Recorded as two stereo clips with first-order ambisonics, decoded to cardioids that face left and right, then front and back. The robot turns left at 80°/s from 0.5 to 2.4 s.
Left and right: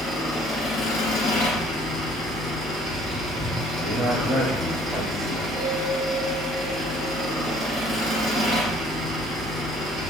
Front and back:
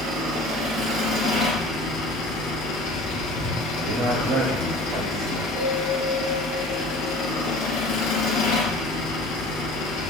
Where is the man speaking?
175° right, 1.1 m.